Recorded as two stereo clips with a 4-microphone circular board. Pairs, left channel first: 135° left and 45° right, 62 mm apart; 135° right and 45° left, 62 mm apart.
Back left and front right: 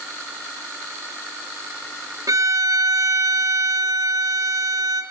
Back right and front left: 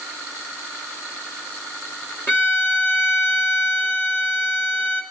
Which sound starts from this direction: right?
A violin, at 2.3 s.